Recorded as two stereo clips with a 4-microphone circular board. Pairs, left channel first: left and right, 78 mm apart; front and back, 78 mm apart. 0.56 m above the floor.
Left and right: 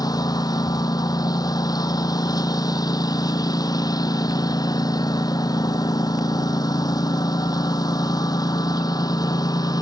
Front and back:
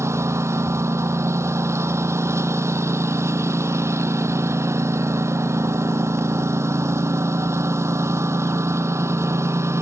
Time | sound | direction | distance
0.0 | a lawn mower | 125° left | ?